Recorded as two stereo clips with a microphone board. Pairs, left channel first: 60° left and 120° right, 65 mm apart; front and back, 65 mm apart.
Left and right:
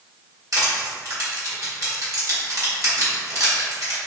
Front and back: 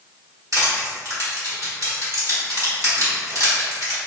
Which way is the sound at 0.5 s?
150° right.